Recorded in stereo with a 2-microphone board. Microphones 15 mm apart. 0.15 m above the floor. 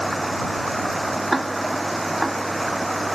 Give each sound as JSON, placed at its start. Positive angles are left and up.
{"t": 0.0, "sound": "running water", "side_deg": 10}
{"t": 1.3, "sound": "ticking", "side_deg": -5}